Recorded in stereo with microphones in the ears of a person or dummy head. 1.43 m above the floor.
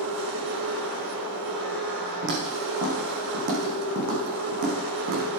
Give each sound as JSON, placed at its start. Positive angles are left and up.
{"t": 0.0, "sound": "a machine running", "side_deg": -70, "distance_m": 4.5}
{"t": 2.2, "sound": "footsteps", "side_deg": -60, "distance_m": 5.5}